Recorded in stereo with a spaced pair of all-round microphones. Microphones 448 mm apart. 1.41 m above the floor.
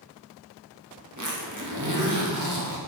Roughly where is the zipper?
Right.